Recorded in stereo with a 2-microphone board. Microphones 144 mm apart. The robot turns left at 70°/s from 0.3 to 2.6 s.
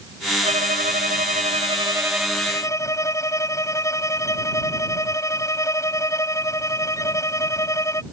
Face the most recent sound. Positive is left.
turn(degrees=160)